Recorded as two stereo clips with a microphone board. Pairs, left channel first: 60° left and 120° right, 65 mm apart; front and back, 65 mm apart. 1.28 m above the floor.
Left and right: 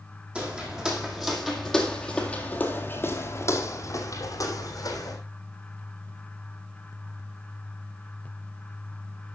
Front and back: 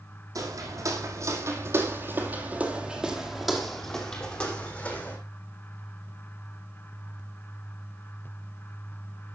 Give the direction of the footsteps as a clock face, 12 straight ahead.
6 o'clock.